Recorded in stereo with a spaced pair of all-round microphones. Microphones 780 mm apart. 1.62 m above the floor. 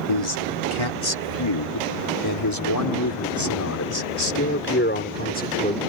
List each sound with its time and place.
0.1 s a man speaking: 40° left (ahead or behind); by 5.8 s 10° left (ahead or behind)